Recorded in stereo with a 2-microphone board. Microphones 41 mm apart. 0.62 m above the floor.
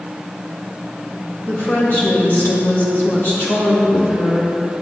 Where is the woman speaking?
60° left (ahead or behind), 2.0 m.